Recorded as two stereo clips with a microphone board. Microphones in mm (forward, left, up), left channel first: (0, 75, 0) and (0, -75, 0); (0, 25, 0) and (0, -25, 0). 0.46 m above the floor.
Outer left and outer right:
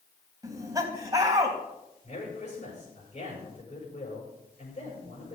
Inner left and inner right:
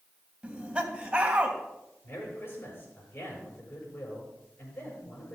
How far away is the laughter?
About 3 m.